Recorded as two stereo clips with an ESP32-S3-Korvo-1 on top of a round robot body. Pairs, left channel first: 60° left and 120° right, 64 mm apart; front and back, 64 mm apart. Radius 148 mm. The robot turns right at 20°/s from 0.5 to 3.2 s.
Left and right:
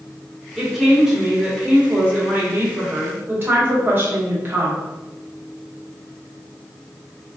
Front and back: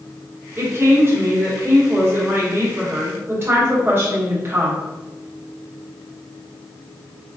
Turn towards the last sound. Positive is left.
turn(degrees=-155)